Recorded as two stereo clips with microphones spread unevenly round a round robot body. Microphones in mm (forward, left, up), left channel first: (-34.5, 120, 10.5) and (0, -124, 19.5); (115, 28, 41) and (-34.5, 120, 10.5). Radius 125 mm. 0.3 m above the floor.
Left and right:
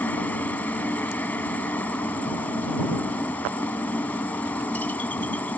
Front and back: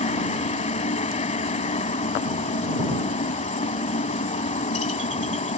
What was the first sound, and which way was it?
A helicopter, 15° left.